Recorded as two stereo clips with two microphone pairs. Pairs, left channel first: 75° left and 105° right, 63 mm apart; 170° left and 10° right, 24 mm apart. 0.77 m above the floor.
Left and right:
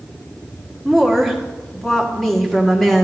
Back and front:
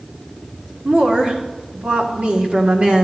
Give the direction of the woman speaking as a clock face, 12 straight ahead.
12 o'clock.